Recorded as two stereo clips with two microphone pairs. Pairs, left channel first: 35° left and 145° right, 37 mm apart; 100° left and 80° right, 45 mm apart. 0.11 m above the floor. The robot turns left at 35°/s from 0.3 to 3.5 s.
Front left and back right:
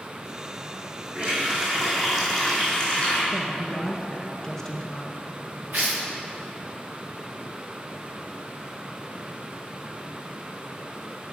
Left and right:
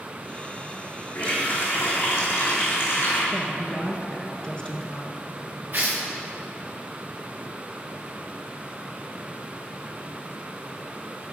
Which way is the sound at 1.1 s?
165° left.